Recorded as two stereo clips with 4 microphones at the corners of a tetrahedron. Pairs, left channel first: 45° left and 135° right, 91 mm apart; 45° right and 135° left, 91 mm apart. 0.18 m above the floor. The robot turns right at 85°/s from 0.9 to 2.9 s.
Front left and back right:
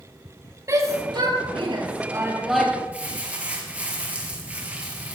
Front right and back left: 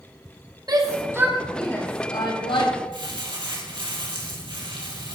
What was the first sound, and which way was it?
A shout, 175° left.